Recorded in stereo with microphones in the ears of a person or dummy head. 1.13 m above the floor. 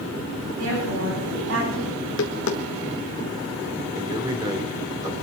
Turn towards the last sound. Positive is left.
turn(degrees=-20)  # may be behind; listen again after turning